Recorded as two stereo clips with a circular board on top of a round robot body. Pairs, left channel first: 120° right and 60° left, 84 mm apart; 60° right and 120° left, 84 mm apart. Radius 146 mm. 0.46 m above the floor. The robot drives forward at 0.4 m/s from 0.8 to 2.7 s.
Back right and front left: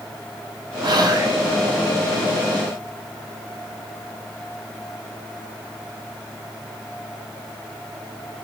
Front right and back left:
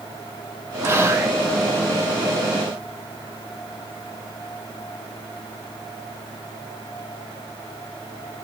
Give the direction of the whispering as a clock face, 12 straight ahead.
10 o'clock.